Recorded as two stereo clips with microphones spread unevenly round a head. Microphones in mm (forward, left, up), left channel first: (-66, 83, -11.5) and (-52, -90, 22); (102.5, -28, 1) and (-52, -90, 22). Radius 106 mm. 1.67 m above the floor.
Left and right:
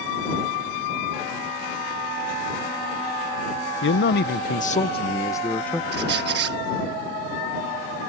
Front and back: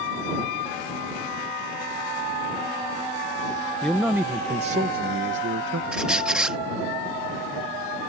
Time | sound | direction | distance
3.8 | a man speaking | 110° left | ?
5.9 | a squeak | 75° right | ?